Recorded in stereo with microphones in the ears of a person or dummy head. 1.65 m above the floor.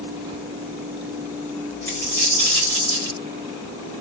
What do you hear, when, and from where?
1.9 s a dropped coin: 15° left (ahead or behind), 1.9 m